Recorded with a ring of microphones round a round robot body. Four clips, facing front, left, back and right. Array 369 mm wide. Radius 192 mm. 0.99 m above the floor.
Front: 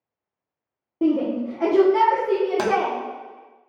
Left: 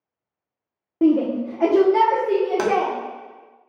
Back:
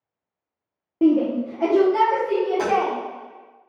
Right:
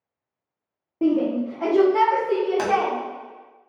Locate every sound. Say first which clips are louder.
1.0 s a shout: left 3 dB, back 3 dB; 110° left, 0.7 m; by 2.9 s 60° left, 1.3 m
2.6 s tapping: left 3 dB, even; 15° left, 0.6 m